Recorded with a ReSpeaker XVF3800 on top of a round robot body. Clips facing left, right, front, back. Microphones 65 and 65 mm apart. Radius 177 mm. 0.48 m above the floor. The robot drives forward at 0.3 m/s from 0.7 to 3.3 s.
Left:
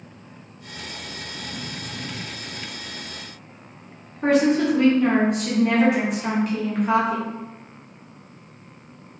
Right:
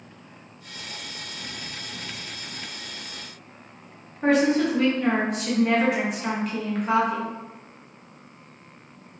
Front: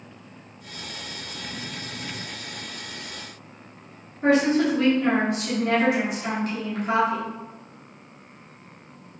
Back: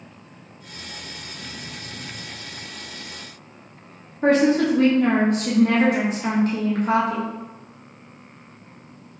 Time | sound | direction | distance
4.2 | a woman speaking | 175° left | 0.9 m